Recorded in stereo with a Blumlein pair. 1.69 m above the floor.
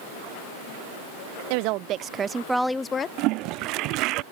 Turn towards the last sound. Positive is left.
turn(degrees=-40)